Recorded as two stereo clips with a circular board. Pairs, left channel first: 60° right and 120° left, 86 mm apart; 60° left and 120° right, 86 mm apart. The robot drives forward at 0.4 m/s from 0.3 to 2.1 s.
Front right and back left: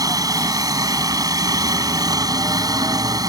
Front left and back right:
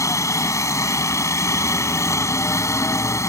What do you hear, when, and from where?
0.0 s a helicopter: 100° left